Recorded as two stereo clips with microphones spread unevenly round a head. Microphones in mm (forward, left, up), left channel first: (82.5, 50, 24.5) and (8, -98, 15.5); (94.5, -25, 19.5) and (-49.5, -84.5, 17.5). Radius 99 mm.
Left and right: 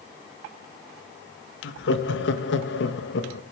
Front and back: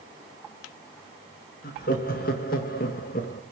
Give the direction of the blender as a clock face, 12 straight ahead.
I don't hear a blender.